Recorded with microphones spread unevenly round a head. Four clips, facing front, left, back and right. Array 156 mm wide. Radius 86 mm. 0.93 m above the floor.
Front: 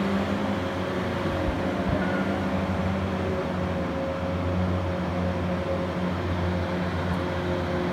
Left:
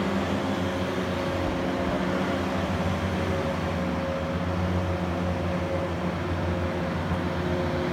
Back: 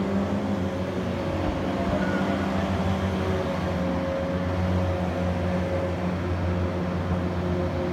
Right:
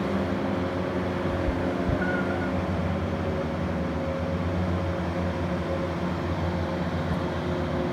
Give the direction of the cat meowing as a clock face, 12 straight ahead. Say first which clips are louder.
Even, even; 1 o'clock.